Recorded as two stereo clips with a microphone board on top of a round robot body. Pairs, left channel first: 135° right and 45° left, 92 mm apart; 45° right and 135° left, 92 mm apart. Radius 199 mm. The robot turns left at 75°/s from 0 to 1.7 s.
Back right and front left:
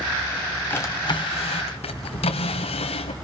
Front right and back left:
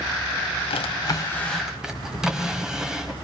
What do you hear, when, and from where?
0.7 s a drawer: 65° right, 1.2 m; by 3.1 s 140° right, 1.2 m